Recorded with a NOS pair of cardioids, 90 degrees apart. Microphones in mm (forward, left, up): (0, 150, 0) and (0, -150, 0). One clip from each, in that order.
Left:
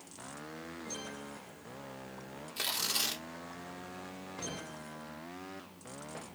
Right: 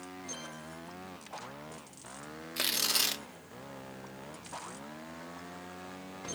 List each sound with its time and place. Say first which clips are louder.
2.6 s tearing paper: right 3 dB; 30° right, 1.1 m